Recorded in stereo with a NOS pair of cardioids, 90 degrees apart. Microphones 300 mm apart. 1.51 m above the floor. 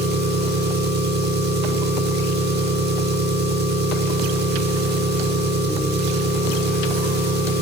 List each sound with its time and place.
0.0 s an engine running: 35° right, 2 m